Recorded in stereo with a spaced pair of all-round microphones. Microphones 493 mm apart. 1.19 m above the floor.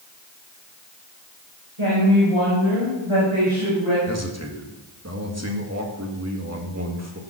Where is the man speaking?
30° right (ahead or behind), 1.9 m.